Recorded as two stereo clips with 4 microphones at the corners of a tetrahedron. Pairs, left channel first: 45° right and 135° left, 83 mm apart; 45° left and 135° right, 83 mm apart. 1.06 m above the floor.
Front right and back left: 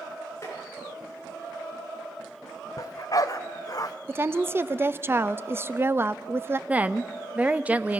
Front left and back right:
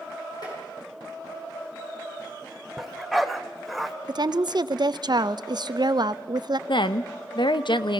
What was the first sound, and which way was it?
Tapping, 10° left.